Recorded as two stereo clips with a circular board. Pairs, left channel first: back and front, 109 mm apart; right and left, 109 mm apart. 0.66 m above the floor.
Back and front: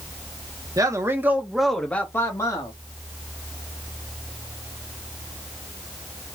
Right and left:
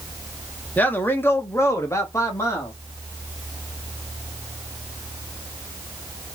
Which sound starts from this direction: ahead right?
A man speaking, at 0.8 s.